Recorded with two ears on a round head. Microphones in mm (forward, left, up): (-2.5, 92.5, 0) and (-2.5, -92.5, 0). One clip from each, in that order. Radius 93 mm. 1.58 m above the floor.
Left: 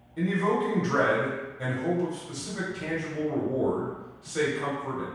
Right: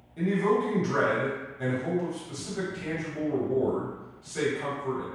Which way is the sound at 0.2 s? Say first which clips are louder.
Right 1 dB; 5° left (ahead or behind).